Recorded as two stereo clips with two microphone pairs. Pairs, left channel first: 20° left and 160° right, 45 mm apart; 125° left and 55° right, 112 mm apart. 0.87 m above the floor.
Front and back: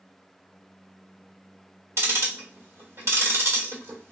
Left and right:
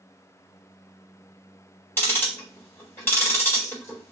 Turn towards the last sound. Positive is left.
turn(degrees=-170)